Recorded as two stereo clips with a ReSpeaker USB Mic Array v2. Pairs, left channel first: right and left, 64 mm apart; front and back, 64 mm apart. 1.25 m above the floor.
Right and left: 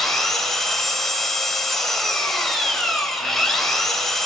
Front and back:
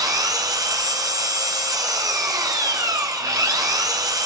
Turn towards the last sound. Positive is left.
turn(degrees=-175)